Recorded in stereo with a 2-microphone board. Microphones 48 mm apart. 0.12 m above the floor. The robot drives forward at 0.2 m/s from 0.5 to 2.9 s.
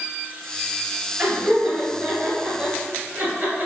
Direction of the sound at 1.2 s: 40° right (ahead or behind).